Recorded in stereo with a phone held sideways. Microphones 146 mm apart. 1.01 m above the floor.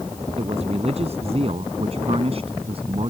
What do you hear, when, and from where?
0.4 s a man speaking: 50° right (ahead or behind); by 3.1 s 45° right (ahead or behind)